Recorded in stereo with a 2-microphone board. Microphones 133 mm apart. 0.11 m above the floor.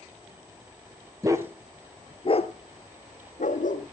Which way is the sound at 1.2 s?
25° right (ahead or behind).